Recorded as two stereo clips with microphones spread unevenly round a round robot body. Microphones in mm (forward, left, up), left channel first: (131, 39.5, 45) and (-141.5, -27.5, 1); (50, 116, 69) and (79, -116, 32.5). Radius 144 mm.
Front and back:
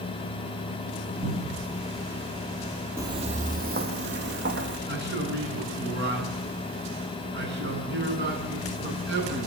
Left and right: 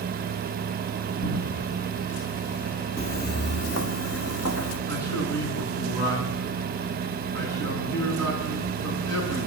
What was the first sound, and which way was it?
A cupboard door, 135° left.